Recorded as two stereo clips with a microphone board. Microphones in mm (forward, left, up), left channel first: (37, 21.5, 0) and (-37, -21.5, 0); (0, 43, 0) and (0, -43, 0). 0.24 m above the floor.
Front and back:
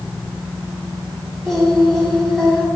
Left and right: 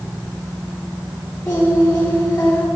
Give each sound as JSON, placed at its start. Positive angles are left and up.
{"t": 1.4, "sound": "singing", "azimuth_deg": 120, "distance_m": 2.0}